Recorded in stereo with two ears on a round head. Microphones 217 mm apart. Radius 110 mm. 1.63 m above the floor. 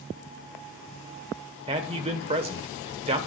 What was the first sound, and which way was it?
A man speaking, 25° right (ahead or behind).